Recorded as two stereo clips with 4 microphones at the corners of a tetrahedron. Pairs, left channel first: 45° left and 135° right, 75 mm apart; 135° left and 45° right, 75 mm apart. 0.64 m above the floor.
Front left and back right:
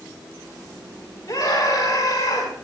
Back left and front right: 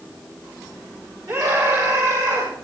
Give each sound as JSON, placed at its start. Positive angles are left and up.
{"t": 1.3, "sound": "a scream", "azimuth_deg": 0, "distance_m": 8.5}